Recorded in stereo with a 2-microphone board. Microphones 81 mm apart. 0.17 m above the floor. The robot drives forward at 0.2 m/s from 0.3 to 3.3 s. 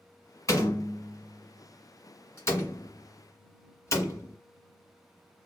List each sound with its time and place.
0.5 s a door slam: 40° left (ahead or behind), 1.3 m; by 4.4 s 35° left (ahead or behind), 1.5 m